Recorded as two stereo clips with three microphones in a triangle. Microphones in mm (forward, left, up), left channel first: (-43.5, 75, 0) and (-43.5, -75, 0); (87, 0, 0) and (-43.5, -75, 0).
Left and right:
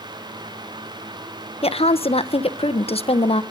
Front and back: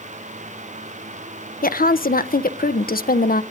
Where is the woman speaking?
45° left, 0.8 m.